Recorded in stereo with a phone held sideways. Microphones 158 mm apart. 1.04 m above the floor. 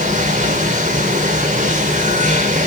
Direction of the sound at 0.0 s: 55° right (ahead or behind).